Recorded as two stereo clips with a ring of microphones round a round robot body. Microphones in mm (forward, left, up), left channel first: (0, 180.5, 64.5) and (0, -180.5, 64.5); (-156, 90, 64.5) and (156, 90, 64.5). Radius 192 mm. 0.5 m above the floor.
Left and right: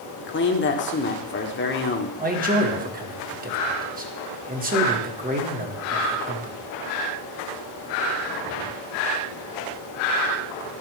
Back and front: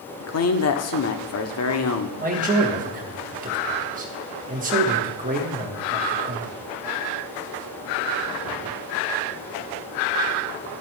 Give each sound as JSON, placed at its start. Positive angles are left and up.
{"t": 0.2, "sound": "a man speaking", "azimuth_deg": 145, "distance_m": 1.1}
{"t": 2.2, "sound": "a man speaking", "azimuth_deg": -40, "distance_m": 1.3}